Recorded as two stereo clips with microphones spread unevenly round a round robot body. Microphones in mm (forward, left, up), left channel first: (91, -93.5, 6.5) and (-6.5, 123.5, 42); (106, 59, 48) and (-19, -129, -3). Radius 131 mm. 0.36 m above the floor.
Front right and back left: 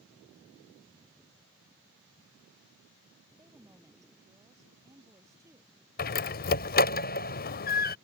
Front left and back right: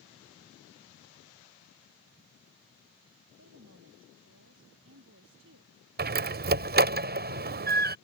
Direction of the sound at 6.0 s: 105° right.